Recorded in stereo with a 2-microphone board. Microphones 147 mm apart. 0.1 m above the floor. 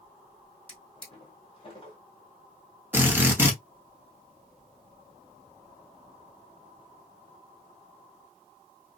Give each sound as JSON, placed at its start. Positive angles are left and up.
{"t": 0.7, "sound": "a drawer", "side_deg": 40, "distance_m": 1.5}
{"t": 2.9, "sound": "a drill", "side_deg": -15, "distance_m": 1.0}